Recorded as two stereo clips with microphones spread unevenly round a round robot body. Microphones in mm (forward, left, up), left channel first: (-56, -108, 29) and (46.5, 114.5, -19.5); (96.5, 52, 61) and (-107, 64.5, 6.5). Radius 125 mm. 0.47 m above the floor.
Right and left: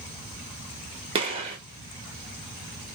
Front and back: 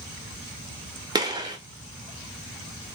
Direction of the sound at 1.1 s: 120° left.